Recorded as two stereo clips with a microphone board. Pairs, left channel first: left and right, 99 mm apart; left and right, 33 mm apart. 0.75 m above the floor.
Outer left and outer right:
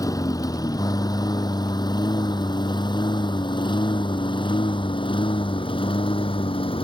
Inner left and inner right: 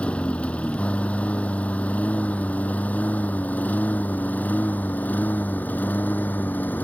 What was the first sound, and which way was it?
A lawn mower, 35° left (ahead or behind).